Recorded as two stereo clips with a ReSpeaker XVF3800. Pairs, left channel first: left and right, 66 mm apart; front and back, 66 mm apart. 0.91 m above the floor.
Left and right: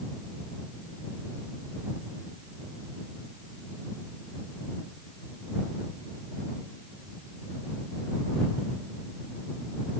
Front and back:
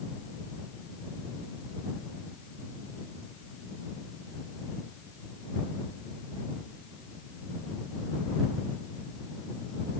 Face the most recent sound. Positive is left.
No sound to turn to.